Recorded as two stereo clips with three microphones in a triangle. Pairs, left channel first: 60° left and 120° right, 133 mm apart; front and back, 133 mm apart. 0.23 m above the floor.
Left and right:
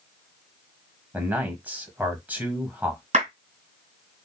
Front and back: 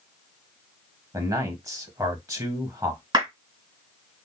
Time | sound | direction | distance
1.1 | a man speaking | straight behind | 1.1 m
3.1 | a clap | 130° right | 2.5 m